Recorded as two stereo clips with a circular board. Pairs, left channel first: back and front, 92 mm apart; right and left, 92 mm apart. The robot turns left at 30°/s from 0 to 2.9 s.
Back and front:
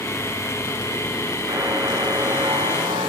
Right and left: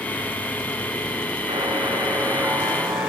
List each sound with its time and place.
1.5 s a buzzer: 55° left, 9.5 m; by 3.1 s 10° left, 9.5 m